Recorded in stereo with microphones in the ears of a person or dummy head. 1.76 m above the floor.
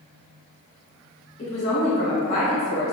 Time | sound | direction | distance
1.4 | a woman speaking | 35° left (ahead or behind) | 1.4 m